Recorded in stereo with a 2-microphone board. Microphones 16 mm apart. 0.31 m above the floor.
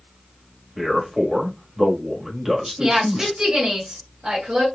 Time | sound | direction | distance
0.8 | a man speaking | 30° right (ahead or behind) | 1.5 m
2.8 | a woman speaking | 50° right (ahead or behind) | 2.5 m